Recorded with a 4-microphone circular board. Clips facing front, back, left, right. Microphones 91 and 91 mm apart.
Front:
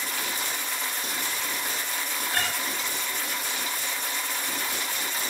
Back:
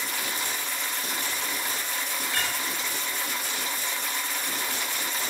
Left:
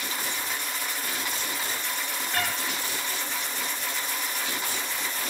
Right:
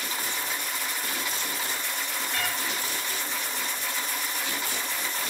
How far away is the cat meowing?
About 1.9 m.